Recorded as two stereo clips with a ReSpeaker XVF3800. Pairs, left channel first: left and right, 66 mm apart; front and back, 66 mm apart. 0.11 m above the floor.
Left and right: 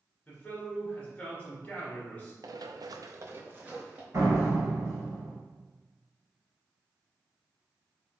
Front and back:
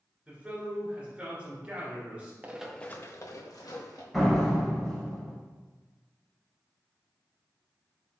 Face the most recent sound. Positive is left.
turn(degrees=-85)